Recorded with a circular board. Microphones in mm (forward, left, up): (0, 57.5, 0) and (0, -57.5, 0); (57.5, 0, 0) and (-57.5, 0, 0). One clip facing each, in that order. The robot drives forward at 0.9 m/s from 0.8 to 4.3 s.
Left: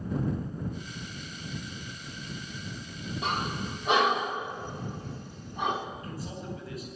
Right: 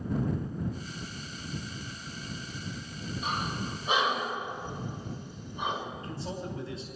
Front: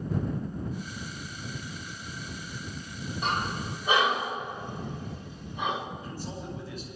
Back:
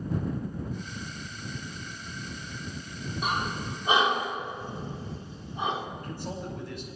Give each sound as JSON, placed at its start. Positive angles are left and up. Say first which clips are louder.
{"t": 3.2, "sound": "breathing", "louder": "left 2 dB, even", "azimuth_deg": 95, "distance_m": 2.5}
{"t": 6.0, "sound": "a man speaking", "louder": "right 2 dB, back 2 dB", "azimuth_deg": -150, "distance_m": 5.0}